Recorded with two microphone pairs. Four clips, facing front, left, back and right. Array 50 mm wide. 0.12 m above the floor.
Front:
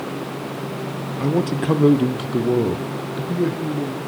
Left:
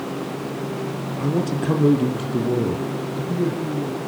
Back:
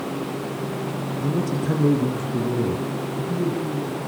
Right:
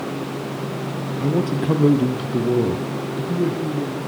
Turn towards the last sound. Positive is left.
turn(degrees=-10)